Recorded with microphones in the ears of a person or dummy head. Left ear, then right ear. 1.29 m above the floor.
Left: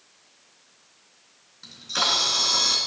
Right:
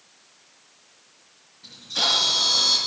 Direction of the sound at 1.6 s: 60° left (ahead or behind).